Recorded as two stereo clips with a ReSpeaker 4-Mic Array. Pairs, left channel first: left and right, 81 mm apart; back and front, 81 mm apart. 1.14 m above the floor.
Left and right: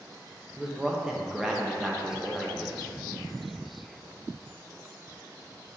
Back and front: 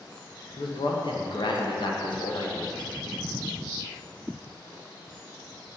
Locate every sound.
0.6 s a man speaking: 175° right, 0.9 m